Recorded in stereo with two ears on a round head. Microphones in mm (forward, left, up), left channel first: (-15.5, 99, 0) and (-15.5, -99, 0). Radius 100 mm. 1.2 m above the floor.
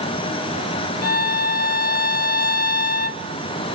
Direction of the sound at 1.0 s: 45° left (ahead or behind).